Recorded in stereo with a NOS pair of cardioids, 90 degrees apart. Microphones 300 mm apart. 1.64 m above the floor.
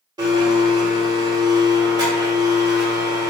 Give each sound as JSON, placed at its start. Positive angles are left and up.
{"t": 0.2, "sound": "a blender", "azimuth_deg": -15, "distance_m": 1.3}